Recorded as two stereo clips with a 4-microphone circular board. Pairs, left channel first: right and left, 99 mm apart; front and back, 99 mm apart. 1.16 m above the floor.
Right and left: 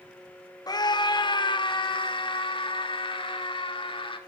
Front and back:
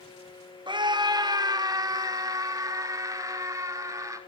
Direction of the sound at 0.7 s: 140° right.